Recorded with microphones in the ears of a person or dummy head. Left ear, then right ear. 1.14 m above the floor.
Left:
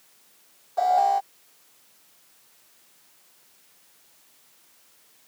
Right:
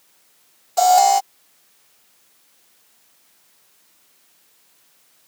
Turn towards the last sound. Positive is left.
turn(degrees=-70)  # may be behind; listen again after turning